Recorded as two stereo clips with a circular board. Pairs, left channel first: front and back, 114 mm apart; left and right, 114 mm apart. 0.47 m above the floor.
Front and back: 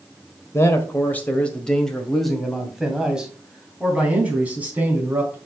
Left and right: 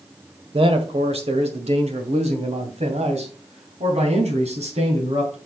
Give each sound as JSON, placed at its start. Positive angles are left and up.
{"t": 0.5, "sound": "a man speaking", "azimuth_deg": -65, "distance_m": 1.6}